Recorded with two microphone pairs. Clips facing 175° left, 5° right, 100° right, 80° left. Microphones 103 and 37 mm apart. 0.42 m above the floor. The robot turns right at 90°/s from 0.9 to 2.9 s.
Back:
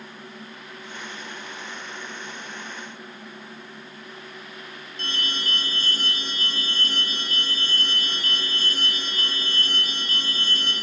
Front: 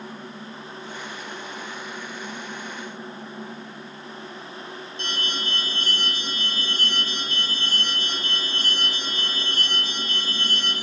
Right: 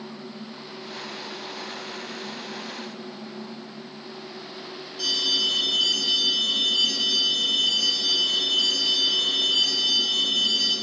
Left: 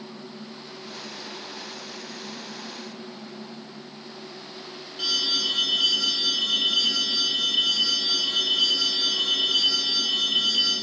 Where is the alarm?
135° left, 5.5 m.